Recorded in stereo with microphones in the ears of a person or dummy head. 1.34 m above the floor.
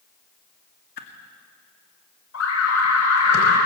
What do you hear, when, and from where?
1.0 s a whoosh: 50° left (ahead or behind), 2 m
2.3 s an alarm: 70° left (ahead or behind), 5.5 m